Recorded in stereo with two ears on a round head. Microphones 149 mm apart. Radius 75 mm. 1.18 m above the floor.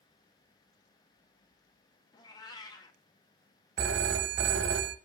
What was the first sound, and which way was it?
A cat meowing, 25° left (ahead or behind).